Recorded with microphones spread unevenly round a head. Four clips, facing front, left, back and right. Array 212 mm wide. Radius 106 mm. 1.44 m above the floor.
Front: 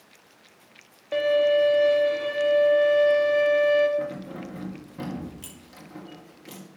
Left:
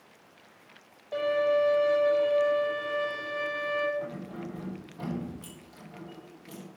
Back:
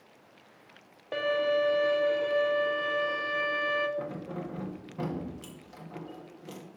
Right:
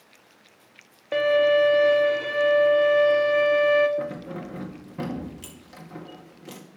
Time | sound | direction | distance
1.1 | a violin | 80° right | 1.6 m
4.0 | keys jangling | 80° right | 2 m